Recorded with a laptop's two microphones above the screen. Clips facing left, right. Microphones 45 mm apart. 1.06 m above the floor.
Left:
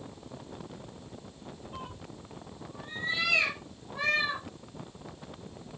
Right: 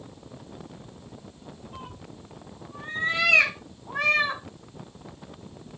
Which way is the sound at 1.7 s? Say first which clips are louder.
Even; centre (ahead or behind).